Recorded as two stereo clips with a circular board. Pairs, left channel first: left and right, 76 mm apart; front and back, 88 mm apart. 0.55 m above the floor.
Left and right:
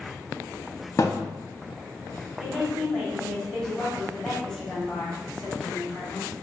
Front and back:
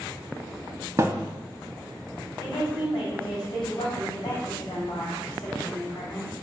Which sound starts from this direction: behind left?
A thud, at 1.0 s.